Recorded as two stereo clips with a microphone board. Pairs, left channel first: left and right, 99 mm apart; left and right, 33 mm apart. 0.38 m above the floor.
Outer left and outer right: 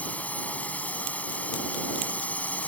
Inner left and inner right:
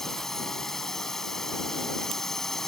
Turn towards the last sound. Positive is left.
turn(degrees=15)  # may be behind; listen again after turning